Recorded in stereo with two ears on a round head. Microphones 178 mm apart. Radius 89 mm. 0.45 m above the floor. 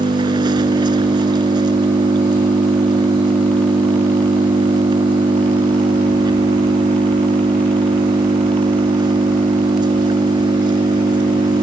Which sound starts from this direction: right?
An engine running, at 0.0 s.